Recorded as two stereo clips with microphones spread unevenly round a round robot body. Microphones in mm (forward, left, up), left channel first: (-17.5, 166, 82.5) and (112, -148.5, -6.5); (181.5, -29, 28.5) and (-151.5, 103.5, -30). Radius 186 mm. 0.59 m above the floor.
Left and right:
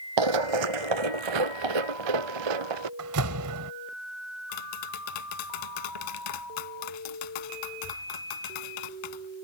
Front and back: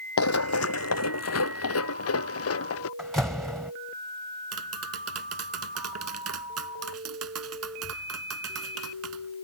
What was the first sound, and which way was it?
Running footsteps, 60° right.